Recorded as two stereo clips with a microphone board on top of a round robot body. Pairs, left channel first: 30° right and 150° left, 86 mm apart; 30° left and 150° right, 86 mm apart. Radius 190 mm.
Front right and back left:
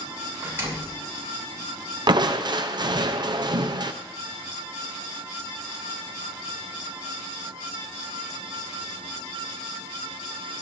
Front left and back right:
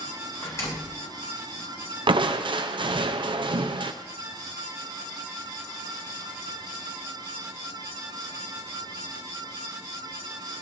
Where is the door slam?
85° left, 7 m.